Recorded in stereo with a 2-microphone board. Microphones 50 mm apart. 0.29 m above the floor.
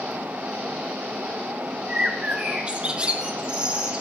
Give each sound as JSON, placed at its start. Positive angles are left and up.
{"t": 1.9, "sound": "a bird", "side_deg": -20, "distance_m": 1.9}